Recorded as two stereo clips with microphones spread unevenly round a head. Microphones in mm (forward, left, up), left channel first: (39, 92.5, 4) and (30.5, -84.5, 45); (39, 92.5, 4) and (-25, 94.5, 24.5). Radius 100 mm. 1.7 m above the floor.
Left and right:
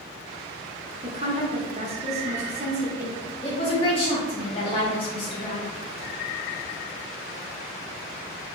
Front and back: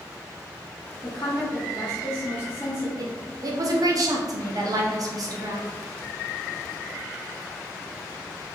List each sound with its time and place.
1.0 s a woman speaking: 65° right, 0.8 m
3.0 s a woman speaking: 155° left, 0.9 m